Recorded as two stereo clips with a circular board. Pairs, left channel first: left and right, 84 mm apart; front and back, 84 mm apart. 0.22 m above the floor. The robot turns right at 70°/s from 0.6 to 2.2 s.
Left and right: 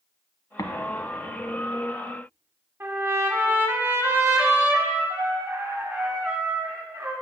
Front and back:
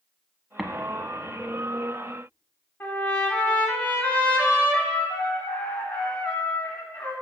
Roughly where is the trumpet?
Ahead right.